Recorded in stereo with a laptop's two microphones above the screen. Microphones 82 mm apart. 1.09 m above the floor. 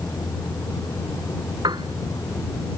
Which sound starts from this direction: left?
A vehicle, at 0.0 s.